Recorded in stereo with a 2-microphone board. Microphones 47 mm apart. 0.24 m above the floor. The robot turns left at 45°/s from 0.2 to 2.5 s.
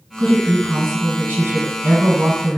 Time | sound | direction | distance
0.2 | a woman speaking | 20° right | 1.6 m